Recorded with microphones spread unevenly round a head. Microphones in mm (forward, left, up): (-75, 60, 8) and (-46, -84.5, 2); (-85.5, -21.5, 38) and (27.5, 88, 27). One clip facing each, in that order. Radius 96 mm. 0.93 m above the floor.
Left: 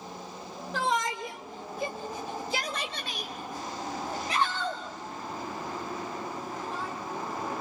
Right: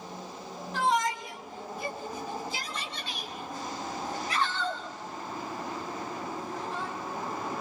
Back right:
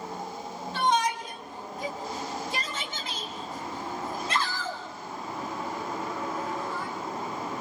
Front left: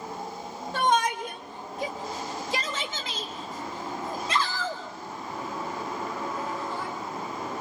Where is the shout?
85° left, 4 m; by 6.9 s 10° left, 8.5 m.